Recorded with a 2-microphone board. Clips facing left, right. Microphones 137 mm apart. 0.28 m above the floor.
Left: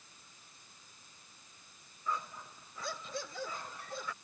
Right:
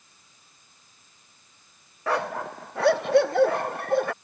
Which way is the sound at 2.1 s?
80° right.